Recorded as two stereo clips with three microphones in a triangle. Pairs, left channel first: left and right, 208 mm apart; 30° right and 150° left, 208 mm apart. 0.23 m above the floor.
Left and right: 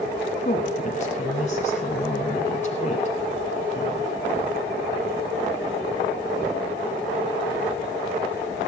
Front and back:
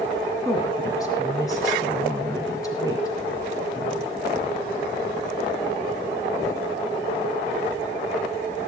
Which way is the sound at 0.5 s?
40° left.